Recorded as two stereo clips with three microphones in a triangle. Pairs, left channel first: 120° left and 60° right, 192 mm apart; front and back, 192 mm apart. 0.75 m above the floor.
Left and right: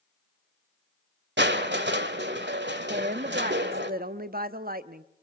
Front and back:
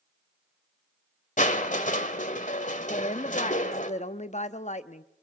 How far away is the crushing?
About 1.5 m.